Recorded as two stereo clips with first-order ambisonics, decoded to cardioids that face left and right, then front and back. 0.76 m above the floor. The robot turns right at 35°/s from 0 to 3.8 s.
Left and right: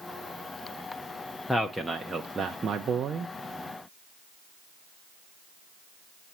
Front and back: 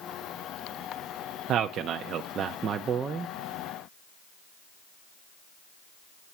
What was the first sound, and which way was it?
A man speaking, 175° left.